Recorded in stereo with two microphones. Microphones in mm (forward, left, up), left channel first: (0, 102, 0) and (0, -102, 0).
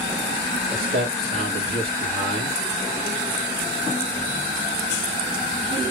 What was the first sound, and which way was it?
A man speaking, 45° right (ahead or behind).